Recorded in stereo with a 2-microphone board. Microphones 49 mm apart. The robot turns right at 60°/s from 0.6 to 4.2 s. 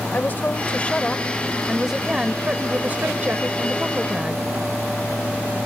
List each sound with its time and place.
0.1 s a woman speaking: 115° left; by 4.5 s 30° right